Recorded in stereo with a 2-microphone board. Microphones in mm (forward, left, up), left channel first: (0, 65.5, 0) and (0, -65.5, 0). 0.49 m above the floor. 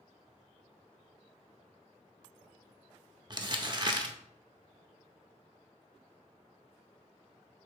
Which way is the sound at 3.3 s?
35° right (ahead or behind).